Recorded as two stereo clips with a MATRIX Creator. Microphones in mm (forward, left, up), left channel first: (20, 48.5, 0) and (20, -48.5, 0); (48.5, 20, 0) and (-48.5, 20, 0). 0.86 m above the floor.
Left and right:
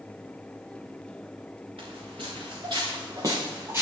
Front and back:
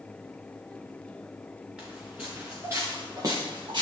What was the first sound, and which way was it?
Footsteps, 105° right.